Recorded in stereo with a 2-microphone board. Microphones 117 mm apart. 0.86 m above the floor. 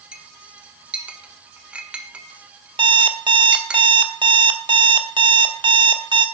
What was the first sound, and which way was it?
A clink, 10° right (ahead or behind).